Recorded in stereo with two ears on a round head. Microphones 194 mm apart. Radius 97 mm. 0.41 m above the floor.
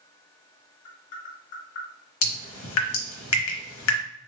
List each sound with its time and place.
0.8 s tapping: 60° left (ahead or behind), 1.4 m
2.2 s dripping: 70° left (ahead or behind), 0.8 m